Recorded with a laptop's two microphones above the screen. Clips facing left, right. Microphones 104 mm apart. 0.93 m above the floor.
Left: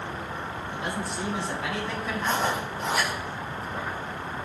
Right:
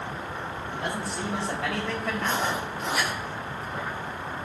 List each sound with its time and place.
0.7 s a man speaking: 65° right (ahead or behind), 6 m; by 2.6 s 70° right (ahead or behind), 5 m
2.2 s writing: centre (ahead or behind), 3 m